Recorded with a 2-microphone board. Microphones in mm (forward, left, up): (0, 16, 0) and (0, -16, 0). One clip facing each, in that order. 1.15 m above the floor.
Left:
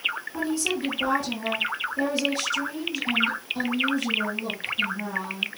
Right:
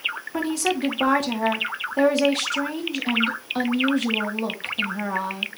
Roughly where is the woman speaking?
Right.